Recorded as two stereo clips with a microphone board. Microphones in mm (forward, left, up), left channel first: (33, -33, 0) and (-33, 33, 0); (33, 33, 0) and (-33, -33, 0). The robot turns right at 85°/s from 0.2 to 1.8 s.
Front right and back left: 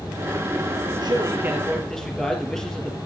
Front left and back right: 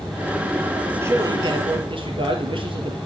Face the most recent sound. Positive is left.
turn(degrees=-130)